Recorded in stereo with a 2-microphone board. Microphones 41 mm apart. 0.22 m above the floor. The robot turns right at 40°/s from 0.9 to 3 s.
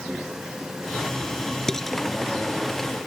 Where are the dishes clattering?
15° left (ahead or behind); by 2.0 s centre (ahead or behind).